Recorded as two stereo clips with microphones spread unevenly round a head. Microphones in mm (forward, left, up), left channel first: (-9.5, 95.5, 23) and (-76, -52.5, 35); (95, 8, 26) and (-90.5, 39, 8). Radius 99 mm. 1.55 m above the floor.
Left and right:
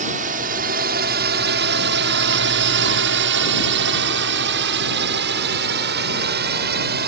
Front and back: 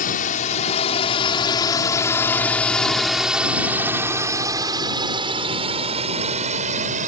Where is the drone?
60° right; by 7.1 s 135° right.